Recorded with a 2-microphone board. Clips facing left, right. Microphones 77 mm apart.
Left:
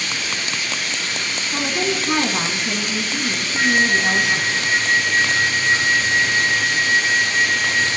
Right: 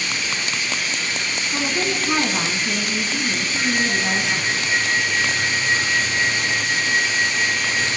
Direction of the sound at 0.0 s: 65° left (ahead or behind).